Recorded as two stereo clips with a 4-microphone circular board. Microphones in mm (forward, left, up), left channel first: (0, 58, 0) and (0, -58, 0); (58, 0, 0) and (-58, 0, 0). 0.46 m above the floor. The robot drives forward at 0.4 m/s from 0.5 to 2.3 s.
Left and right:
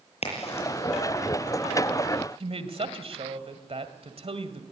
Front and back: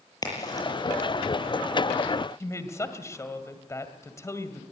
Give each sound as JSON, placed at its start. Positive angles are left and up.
{"t": 0.2, "sound": "a crack", "azimuth_deg": 60, "distance_m": 7.0}
{"t": 2.4, "sound": "a woman speaking", "azimuth_deg": -60, "distance_m": 2.0}